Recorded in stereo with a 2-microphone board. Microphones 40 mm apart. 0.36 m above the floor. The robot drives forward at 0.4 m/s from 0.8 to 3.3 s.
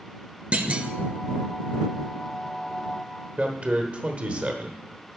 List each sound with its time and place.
0.5 s a clunk: 30° right (ahead or behind), 0.5 m
3.4 s a man speaking: 30° right (ahead or behind), 0.9 m